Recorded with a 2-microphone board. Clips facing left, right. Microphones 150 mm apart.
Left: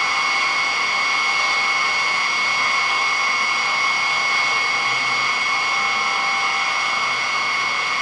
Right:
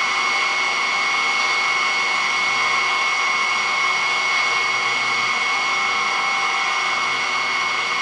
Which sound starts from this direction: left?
An engine running, at 0.0 s.